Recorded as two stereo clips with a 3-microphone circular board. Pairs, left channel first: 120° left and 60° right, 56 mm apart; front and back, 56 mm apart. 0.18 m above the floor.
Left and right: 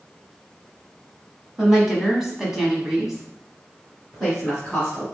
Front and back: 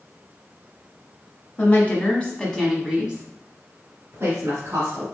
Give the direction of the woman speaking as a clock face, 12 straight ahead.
11 o'clock.